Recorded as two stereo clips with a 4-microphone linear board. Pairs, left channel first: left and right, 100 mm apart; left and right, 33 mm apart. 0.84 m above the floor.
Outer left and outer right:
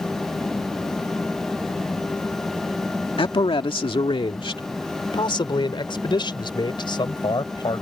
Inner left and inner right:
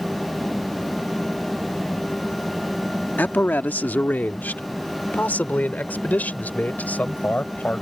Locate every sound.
3.2 s a man speaking: 60° left (ahead or behind); by 7.8 s 50° left (ahead or behind)